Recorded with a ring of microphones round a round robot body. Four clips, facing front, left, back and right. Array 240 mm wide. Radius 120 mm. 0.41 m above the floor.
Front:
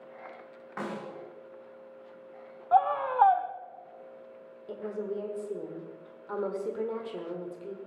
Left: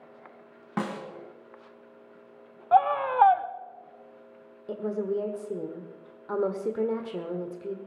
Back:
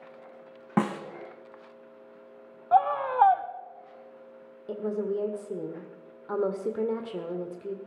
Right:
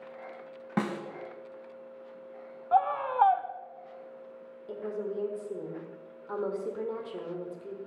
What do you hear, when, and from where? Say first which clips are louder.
0.8 s a snare drum: even, back 9 dB; 165° right, 1.7 m
2.7 s a scream: left 4 dB, back 1 dB; 110° left, 0.8 m
4.7 s a woman speaking: left 5 dB, back 5 dB; 130° left, 1.2 m